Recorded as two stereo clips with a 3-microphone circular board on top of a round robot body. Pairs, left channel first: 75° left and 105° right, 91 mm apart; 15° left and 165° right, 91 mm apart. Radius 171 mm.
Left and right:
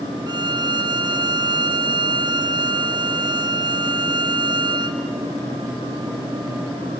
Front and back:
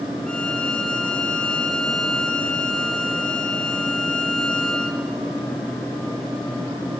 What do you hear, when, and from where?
0.3 s a violin: 65° right, 1.1 m